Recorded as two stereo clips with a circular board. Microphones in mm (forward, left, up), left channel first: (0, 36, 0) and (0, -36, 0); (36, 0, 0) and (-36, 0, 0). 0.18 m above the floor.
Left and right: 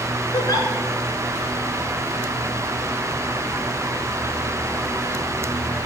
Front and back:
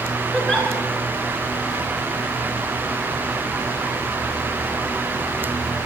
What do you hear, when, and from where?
0.3 s a giggle: 85° left, 1.3 m